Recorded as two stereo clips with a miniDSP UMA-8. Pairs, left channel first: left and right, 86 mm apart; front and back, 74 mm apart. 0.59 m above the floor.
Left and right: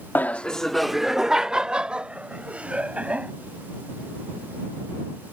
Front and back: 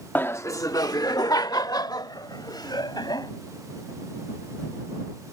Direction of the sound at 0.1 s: 45° left.